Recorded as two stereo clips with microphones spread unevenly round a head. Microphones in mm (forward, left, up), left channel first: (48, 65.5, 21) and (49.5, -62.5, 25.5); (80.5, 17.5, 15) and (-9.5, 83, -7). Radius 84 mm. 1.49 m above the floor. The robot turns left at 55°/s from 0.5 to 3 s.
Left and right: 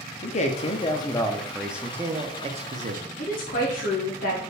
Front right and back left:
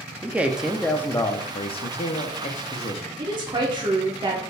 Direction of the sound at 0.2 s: 60° left.